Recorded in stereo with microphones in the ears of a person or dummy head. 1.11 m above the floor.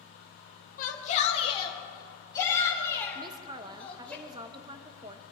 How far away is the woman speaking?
About 0.8 m.